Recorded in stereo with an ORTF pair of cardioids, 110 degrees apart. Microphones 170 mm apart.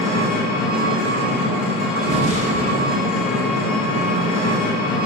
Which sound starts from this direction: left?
An engine running, at 0.0 s.